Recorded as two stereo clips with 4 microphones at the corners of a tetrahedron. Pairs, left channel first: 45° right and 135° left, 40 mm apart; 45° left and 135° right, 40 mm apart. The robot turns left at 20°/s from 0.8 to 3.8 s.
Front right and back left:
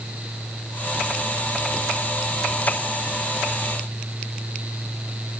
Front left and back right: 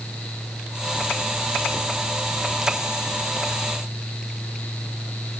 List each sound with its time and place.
Only background noise.